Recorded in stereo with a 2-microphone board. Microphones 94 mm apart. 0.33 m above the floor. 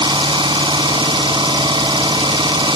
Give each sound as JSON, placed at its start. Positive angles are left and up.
{"t": 0.0, "sound": "an engine running", "side_deg": -55, "distance_m": 1.8}